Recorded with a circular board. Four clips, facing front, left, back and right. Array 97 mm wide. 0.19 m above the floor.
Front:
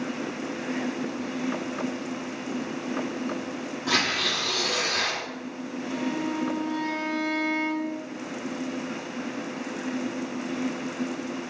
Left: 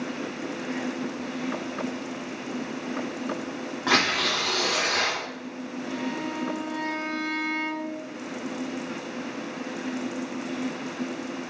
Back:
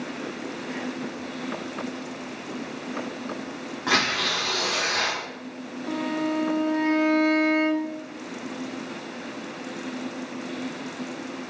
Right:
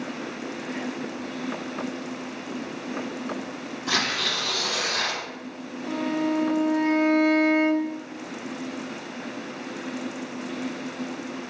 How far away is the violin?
About 0.7 m.